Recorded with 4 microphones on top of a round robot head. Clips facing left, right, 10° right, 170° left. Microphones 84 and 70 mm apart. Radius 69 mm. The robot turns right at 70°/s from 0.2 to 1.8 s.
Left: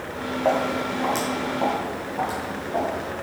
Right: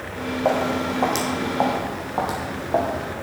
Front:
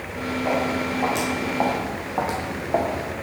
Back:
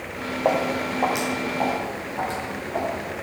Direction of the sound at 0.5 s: 165° right.